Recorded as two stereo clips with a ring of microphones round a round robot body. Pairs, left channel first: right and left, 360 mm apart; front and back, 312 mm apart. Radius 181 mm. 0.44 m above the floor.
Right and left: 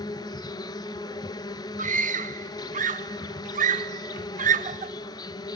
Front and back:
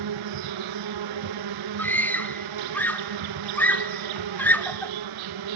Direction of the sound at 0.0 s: 170° right.